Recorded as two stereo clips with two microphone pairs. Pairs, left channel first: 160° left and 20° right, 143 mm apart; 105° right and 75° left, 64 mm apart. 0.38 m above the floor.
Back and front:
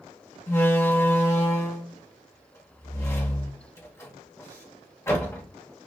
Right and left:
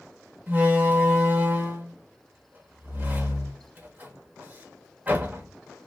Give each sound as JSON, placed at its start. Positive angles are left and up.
{"t": 0.5, "sound": "a door slam", "azimuth_deg": 110, "distance_m": 0.9}